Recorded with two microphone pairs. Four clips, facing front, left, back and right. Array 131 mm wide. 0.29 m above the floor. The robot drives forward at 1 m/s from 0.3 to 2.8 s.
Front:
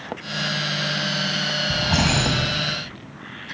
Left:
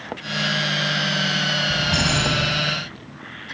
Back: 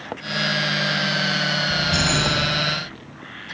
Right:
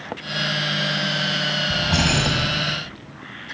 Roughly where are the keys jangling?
Ahead.